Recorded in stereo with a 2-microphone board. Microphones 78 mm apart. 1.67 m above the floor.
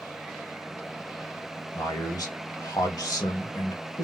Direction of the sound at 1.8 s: 50° left (ahead or behind).